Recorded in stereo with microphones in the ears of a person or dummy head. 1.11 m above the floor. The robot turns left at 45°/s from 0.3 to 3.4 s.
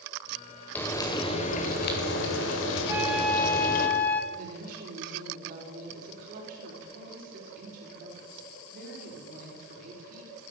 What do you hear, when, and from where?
0.8 s frying: 170° left, 2 m; by 3.9 s 50° left, 2 m
2.9 s a flute: 15° right (ahead or behind), 1.4 m; by 4.2 s 10° left (ahead or behind), 1.4 m
4.3 s a woman speaking: 50° right (ahead or behind), 4 m